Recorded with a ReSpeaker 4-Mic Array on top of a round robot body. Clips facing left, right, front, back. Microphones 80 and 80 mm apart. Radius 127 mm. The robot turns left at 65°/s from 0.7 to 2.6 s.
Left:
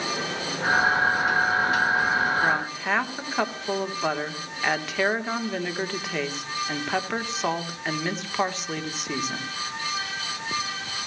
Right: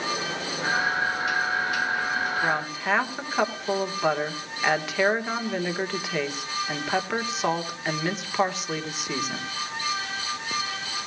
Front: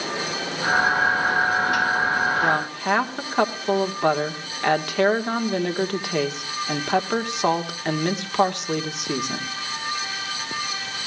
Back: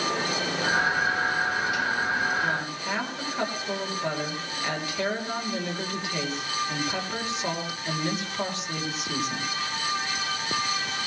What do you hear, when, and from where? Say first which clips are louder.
2.4 s a woman speaking: left 1 dB, front 6 dB; 10° left, 1.7 m; by 9.5 s 5° right, 1.7 m